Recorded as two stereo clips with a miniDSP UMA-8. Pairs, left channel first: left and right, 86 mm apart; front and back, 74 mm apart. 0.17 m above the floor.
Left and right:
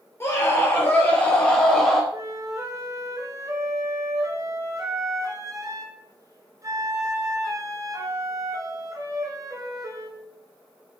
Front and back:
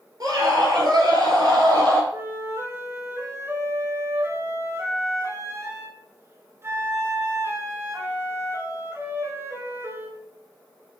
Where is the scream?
150° left, 3.5 m; by 2.0 s 170° left, 4.5 m.